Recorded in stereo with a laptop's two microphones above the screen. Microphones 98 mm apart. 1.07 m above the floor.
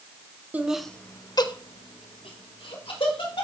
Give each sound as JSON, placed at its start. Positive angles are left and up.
{"t": 0.5, "sound": "laughter", "side_deg": -15, "distance_m": 0.6}